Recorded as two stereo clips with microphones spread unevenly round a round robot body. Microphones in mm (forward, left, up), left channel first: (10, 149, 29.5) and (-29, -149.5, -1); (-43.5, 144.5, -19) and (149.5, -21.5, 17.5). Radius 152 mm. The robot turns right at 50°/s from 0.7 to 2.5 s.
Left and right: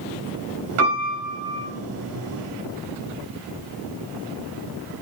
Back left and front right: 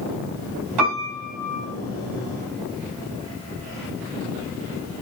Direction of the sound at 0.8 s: 60° right.